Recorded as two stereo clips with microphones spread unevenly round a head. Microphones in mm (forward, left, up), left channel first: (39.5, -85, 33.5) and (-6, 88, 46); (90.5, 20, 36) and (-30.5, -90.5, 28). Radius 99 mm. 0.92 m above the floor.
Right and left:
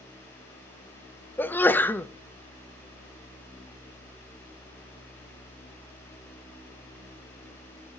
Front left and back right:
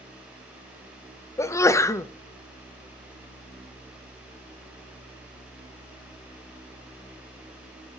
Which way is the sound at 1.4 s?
15° right.